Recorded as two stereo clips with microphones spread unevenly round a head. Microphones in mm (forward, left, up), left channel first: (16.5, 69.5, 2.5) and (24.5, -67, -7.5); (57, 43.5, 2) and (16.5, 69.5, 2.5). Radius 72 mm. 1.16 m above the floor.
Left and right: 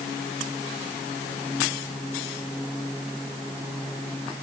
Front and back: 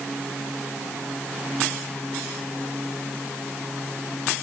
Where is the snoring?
No snoring in this recording.